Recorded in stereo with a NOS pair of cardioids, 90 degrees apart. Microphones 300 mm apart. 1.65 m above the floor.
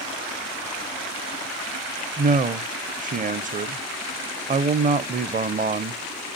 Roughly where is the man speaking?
Ahead right.